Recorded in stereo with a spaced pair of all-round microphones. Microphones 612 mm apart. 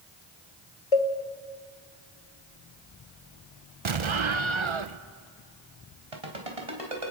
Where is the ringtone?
65° right (ahead or behind), 4 m.